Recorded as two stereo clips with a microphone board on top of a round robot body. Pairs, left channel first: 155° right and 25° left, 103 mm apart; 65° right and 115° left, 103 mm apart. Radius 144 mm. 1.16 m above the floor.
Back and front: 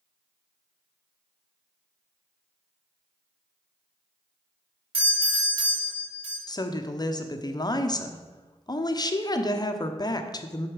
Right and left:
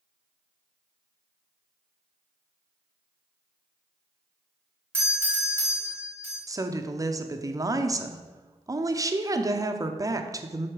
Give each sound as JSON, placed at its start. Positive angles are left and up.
{"t": 4.9, "sound": "a doorbell", "azimuth_deg": 45, "distance_m": 3.0}
{"t": 6.5, "sound": "a woman speaking", "azimuth_deg": 160, "distance_m": 0.9}